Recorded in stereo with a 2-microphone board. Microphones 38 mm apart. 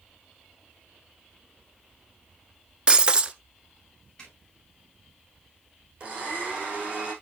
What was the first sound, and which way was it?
Breaking glass, 25° right (ahead or behind).